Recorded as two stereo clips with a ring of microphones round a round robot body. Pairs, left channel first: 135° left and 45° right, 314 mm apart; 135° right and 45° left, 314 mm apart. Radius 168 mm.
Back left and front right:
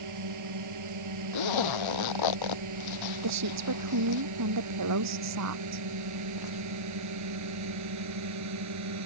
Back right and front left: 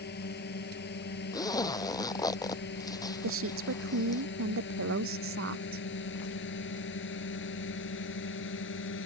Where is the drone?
75° right; by 9.1 s 80° right.